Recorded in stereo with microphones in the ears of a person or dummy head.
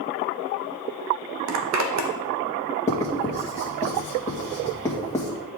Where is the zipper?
85° right, 1.0 m.